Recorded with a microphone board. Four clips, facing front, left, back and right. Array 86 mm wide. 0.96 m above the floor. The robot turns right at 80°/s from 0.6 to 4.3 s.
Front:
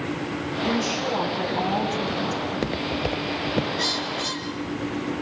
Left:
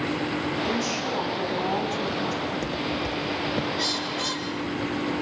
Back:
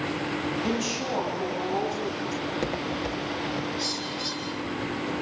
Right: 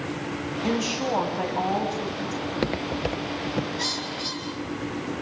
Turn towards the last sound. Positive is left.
turn(degrees=70)